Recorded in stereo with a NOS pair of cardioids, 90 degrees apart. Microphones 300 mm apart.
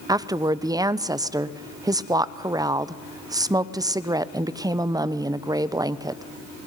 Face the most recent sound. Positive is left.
turn(degrees=-10)